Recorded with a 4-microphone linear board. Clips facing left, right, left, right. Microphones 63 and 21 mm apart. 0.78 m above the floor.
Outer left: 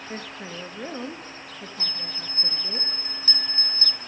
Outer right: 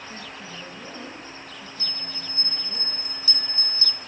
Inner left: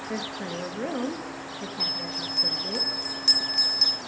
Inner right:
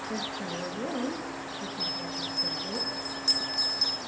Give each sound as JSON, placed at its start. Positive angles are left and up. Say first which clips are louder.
{"t": 0.1, "sound": "a woman speaking", "louder": "outer left 3 dB, inner left 2 dB", "side_deg": 50, "distance_m": 0.8}
{"t": 1.8, "sound": "a bell", "louder": "outer left 1 dB, inner left 5 dB", "side_deg": 40, "distance_m": 0.6}